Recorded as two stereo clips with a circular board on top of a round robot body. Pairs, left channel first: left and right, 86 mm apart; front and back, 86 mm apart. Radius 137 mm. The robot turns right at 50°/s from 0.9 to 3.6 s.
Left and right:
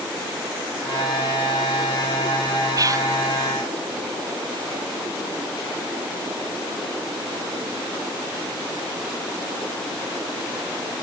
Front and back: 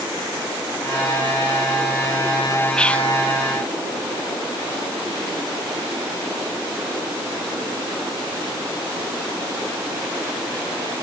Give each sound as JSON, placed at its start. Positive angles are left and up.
{"t": 2.8, "sound": "whispering", "azimuth_deg": -80, "distance_m": 0.9}